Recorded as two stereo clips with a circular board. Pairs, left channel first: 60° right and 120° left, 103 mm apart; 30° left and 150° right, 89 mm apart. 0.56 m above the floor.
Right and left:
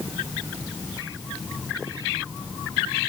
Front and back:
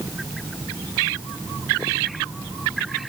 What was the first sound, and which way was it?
Only background noise.